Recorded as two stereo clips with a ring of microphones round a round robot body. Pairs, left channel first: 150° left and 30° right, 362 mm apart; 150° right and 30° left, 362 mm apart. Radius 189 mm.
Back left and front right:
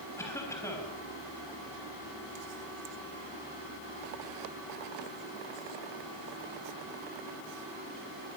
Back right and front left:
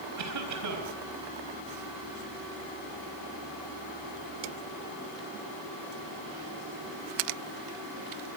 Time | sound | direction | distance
0.2 | a cough | 70° left | 4 m